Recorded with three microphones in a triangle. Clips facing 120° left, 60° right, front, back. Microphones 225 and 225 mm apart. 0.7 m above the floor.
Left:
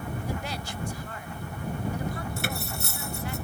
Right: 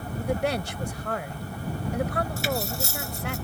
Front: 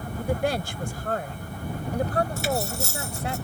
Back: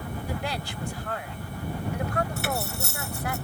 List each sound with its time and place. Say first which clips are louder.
0.2 s a woman speaking: right 8 dB, front 9 dB; 35° right; by 3.4 s 65° right
2.4 s cutlery clinking: right 5 dB, front 4 dB; 150° left